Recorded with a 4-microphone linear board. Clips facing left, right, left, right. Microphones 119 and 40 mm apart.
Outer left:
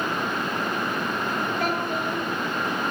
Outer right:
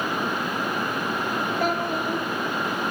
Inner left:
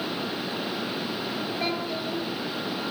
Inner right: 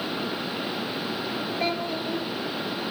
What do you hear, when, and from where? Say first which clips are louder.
1.6 s a child speaking: outer right 1 dB, inner right 3 dB; centre (ahead or behind), 6 m